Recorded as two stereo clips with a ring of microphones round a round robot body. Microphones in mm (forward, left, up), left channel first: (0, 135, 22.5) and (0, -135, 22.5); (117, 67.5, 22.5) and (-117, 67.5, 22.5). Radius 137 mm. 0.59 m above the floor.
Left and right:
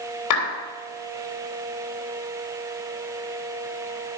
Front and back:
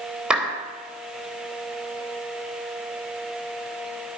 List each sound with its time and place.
0.3 s a clap: 95° left, 3 m